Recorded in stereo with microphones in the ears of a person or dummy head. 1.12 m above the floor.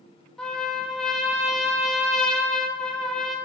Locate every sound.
0.4 s a trumpet: 10° left (ahead or behind), 0.5 m